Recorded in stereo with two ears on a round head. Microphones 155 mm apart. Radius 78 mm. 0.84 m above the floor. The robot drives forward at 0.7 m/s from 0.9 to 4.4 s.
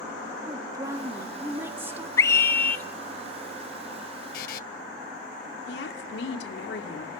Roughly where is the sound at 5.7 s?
Left.